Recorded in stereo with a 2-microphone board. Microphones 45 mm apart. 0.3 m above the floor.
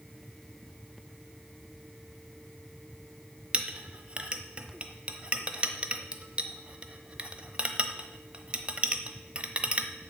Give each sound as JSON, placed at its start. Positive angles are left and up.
{"t": 3.5, "sound": "a clink", "side_deg": -25, "distance_m": 0.9}